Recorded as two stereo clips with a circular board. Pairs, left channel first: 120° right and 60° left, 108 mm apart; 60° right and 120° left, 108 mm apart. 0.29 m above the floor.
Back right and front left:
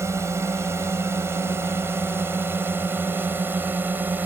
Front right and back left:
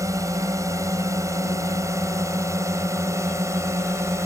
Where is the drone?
95° left; by 4.3 s 110° left.